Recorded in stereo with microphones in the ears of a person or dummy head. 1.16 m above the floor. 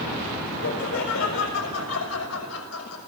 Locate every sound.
0.6 s laughter: 70° left (ahead or behind), 6.5 m; by 3.0 s 80° left, 6 m